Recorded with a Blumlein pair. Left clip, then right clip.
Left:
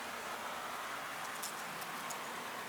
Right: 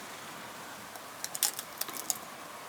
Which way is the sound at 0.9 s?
50° right.